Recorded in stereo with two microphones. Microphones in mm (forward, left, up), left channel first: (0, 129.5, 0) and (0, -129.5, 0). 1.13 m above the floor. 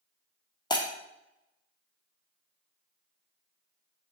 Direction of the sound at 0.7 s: 15° left (ahead or behind).